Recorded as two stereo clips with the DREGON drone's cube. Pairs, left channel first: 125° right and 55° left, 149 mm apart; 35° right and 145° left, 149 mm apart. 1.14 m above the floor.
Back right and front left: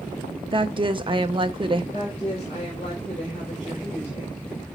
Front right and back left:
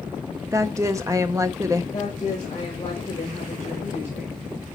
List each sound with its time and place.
0.5 s a woman speaking: 90° left, 0.5 m
1.9 s a woman speaking: 75° right, 4.5 m